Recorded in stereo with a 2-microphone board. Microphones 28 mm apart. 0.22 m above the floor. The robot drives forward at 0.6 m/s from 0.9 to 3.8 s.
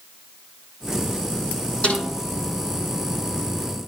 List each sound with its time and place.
1.8 s a snare drum: 45° left (ahead or behind), 7 m